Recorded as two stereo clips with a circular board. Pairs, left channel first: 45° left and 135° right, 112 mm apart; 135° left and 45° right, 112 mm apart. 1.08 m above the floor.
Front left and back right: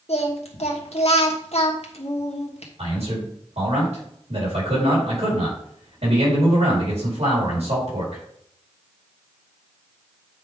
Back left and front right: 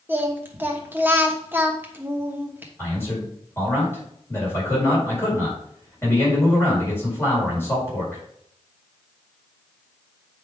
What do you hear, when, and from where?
0.1 s singing: 25° left, 1.2 m
2.8 s a man speaking: 155° right, 4.5 m